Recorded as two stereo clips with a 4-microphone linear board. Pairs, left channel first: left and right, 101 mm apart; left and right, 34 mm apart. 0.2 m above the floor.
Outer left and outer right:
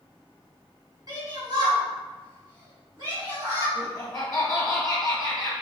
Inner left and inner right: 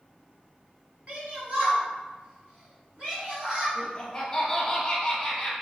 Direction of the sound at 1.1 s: 45° right (ahead or behind).